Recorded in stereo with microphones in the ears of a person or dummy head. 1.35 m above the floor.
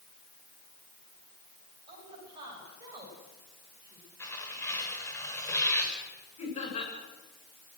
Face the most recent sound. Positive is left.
turn(degrees=40)  # may be behind; listen again after turning